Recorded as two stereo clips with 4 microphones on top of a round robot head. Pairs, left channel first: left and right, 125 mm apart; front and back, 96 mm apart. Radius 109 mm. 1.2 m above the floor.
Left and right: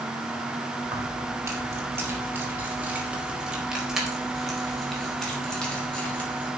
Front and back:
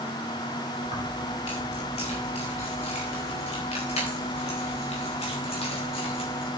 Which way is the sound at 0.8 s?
30° right.